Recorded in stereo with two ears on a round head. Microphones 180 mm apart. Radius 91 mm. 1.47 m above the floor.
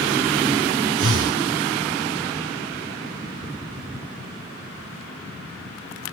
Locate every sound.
1.0 s breathing: 65° right (ahead or behind), 3 m